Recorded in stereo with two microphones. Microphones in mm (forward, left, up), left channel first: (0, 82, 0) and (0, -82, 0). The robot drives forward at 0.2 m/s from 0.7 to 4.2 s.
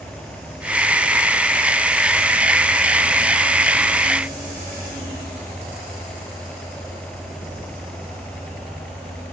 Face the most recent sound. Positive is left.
No sound to turn to.